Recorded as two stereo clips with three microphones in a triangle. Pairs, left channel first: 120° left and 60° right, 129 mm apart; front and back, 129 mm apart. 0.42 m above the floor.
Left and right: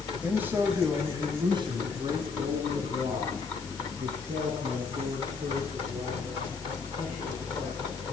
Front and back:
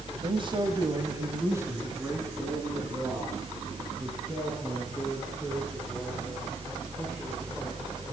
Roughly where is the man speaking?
Behind right.